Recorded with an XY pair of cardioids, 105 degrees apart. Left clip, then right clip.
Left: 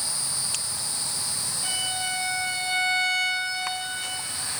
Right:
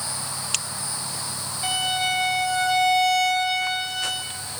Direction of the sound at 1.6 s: 70° right.